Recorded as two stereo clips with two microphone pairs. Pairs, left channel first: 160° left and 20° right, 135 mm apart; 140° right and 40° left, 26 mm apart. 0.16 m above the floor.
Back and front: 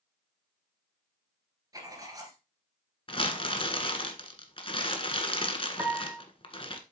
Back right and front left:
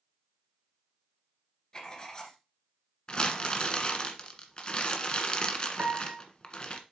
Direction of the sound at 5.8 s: 55° left.